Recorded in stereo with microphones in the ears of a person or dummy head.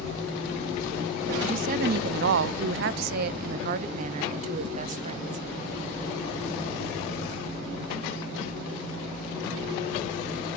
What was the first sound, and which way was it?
A woman speaking, 40° right (ahead or behind).